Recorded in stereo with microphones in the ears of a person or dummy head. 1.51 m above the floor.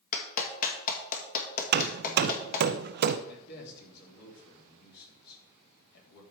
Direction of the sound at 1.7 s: 50° right (ahead or behind).